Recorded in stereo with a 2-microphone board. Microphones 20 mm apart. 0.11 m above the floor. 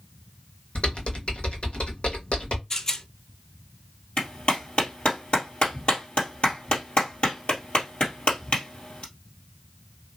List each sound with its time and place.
0.8 s typing on a keyboard: 65° left (ahead or behind), 1.0 m
2.7 s a rattle: 25° left (ahead or behind), 0.6 m
4.2 s a clap: 60° left (ahead or behind), 2.0 m